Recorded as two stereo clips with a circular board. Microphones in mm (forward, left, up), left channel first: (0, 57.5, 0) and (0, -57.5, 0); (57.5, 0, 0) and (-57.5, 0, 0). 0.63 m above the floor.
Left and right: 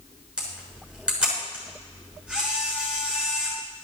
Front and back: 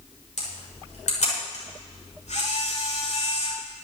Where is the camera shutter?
10° right, 6.5 m.